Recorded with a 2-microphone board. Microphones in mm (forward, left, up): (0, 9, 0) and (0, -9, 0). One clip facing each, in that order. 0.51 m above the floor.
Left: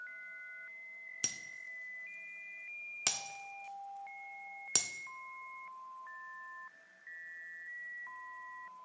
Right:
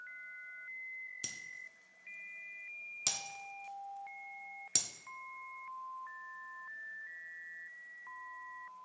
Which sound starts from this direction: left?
Breaking glass, at 1.2 s.